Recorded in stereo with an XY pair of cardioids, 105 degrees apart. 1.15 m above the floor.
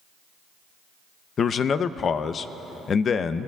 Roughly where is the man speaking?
Ahead left.